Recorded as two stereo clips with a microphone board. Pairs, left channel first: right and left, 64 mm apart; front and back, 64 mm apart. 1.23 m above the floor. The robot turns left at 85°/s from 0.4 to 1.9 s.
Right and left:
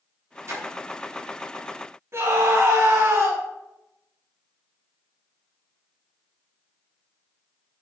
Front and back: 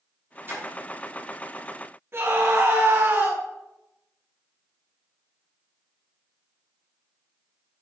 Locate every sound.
0.5 s a splash: 130° left, 4 m; by 0.7 s 115° left, 4 m
2.1 s a scream: 130° left, 3 m